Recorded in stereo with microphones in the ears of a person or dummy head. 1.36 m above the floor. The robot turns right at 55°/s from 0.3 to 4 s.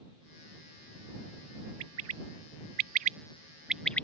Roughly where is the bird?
Right.